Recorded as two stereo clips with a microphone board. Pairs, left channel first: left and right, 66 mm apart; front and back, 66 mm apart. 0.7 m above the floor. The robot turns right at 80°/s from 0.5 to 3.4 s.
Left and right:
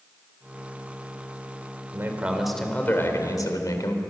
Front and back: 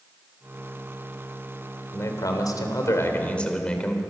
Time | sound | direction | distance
1.9 | a man speaking | 45° right | 3 m